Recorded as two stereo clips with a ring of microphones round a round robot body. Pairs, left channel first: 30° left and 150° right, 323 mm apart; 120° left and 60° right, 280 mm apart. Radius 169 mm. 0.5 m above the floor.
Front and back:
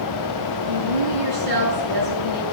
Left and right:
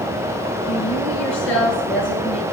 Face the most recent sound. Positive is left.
turn(degrees=175)